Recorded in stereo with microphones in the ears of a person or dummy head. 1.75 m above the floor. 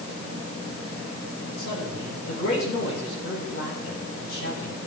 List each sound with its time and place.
1.6 s a man speaking: 75° left (ahead or behind), 7 m